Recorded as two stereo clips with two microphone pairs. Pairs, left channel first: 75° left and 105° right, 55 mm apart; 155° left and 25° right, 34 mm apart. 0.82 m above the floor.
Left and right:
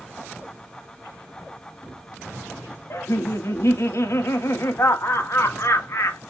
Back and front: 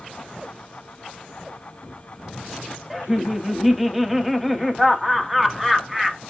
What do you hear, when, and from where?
2.9 s laughter: 50° left, 1.0 m